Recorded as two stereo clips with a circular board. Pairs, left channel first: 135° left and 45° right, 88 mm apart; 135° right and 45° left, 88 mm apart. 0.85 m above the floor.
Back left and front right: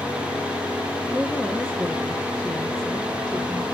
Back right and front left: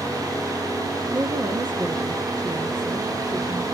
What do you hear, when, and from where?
1.1 s a woman speaking: 55° left, 1.9 m